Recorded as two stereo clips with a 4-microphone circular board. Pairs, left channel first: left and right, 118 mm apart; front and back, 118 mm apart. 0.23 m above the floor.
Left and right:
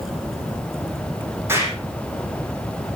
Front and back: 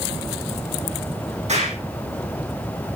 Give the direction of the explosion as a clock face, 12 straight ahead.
5 o'clock.